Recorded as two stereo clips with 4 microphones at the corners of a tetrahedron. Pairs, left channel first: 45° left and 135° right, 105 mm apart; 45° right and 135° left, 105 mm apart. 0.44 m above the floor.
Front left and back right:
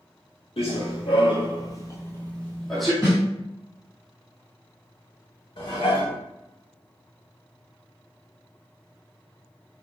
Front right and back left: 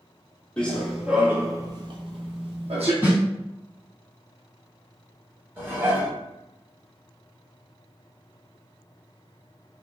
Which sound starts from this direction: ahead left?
Running footsteps, at 0.6 s.